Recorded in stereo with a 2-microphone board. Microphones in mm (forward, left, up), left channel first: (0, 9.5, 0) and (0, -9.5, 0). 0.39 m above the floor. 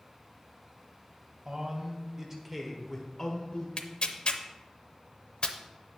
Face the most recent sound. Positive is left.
turn(degrees=55)  # may be behind; listen again after turning